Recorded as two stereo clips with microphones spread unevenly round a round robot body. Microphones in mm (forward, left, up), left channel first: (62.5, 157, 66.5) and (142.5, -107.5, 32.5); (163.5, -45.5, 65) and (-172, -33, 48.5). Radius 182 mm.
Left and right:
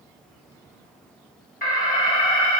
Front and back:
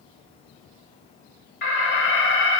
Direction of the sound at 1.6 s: 50° left.